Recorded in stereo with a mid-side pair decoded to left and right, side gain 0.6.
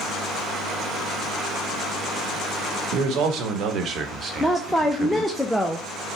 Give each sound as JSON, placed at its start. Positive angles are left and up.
{"t": 2.9, "sound": "a man speaking", "azimuth_deg": -70, "distance_m": 1.3}
{"t": 4.4, "sound": "a woman speaking", "azimuth_deg": 0, "distance_m": 0.6}